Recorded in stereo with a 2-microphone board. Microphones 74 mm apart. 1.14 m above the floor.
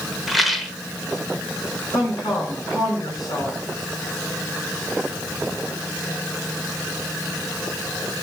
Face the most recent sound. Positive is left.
turn(degrees=60)  # may be behind; listen again after turning